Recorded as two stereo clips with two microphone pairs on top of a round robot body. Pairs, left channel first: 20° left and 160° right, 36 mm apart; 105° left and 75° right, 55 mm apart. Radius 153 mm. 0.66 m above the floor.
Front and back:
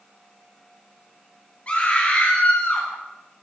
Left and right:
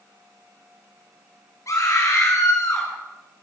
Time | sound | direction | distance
1.7 | a scream | 75° left | 6.5 m